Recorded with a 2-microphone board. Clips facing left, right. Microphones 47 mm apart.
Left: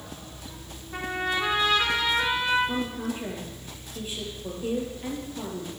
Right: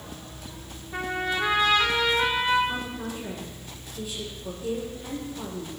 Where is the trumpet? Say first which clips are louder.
Even; centre (ahead or behind), 5 m.